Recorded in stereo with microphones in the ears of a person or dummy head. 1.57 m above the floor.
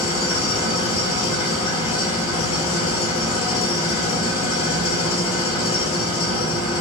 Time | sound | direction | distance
0.0 | an engine running | 25° left (ahead or behind) | 4 m